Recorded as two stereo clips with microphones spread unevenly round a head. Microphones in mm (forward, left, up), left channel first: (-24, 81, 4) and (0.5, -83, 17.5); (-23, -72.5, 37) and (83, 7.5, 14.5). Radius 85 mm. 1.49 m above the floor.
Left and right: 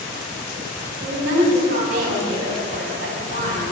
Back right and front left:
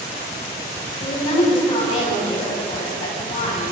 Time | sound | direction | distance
1.0 | a woman speaking | 115° right | 8.5 m